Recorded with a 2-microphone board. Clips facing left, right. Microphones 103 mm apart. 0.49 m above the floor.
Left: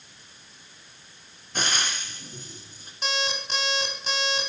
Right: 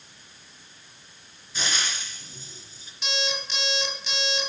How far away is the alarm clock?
About 2.5 m.